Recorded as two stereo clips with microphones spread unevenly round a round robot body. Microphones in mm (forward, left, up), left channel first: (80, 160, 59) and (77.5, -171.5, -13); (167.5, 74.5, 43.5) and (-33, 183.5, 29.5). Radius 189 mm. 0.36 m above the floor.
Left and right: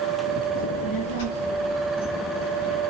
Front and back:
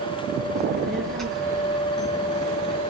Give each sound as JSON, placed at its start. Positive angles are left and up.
{"t": 0.6, "sound": "a child speaking", "azimuth_deg": 60, "distance_m": 4.5}